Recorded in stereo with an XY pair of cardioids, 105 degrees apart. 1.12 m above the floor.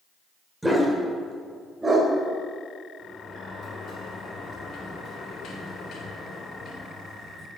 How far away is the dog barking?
About 2 m.